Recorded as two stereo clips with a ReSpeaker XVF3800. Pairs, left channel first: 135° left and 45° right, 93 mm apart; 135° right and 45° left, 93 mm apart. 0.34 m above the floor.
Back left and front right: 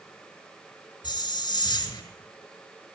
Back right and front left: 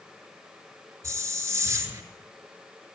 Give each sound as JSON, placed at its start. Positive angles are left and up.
{"t": 1.0, "sound": "a hiss", "azimuth_deg": 100, "distance_m": 4.0}